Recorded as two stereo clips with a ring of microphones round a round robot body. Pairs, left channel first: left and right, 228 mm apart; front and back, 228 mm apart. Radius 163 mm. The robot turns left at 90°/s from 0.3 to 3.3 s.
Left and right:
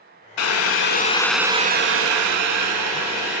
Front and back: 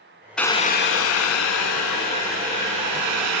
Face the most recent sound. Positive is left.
turn(degrees=-175)